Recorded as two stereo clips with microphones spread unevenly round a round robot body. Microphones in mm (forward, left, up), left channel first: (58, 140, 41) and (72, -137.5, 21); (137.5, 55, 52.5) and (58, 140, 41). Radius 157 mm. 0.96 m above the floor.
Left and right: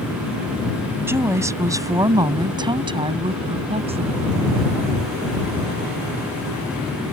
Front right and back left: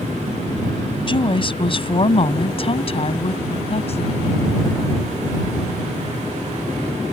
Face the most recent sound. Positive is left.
turn(degrees=-20)